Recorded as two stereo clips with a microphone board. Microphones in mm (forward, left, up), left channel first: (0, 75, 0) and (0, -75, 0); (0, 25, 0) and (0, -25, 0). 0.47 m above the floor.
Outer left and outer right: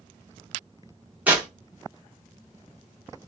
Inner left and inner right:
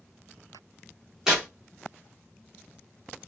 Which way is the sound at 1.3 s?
10° right (ahead or behind).